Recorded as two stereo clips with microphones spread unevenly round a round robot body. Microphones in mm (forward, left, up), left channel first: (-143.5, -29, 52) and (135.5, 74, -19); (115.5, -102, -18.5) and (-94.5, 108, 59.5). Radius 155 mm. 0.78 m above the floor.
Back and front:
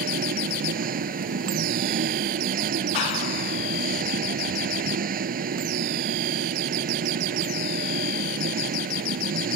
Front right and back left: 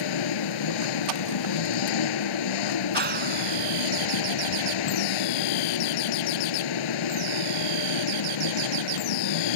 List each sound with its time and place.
0.0 s an engine running: 45° right
2.9 s a clap: 165° right